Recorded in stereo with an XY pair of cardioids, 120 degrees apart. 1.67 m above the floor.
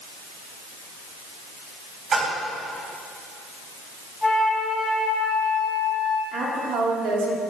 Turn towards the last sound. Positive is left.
turn(degrees=-70)